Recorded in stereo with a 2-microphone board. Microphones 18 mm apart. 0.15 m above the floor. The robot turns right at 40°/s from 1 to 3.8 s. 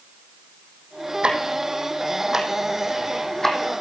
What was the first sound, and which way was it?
Ticking, 65° right (ahead or behind).